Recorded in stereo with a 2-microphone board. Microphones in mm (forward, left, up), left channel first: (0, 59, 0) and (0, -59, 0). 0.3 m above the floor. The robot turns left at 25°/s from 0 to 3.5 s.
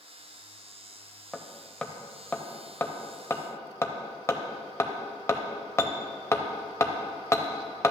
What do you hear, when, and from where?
1.3 s hammering: centre (ahead or behind), 0.6 m; by 7.9 s 25° left (ahead or behind), 0.6 m